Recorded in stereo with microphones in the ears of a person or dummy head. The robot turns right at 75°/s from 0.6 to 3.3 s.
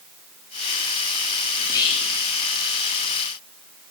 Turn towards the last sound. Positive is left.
turn(degrees=140)